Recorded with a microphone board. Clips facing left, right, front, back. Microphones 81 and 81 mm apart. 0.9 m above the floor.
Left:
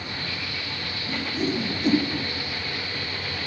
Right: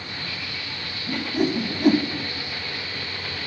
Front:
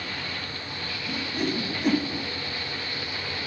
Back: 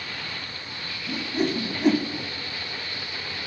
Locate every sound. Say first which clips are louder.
1.1 s a whoosh: right 4 dB, back 3 dB; 115° right, 0.9 m